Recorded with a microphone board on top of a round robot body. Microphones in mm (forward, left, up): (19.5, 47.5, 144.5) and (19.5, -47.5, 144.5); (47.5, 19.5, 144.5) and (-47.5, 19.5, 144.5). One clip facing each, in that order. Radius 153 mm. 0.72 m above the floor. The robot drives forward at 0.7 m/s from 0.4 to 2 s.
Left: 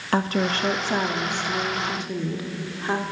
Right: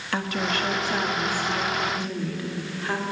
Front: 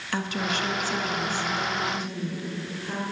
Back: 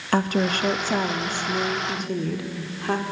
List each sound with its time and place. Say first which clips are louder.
0.1 s a woman speaking: left 4 dB, back 7 dB; 140° left, 1.5 m; by 3.0 s 160° left, 2.5 m